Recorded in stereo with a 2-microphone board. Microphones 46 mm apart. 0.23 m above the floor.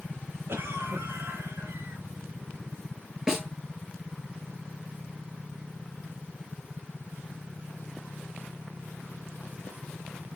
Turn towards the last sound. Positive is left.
turn(degrees=-15)  # may be behind; listen again after turning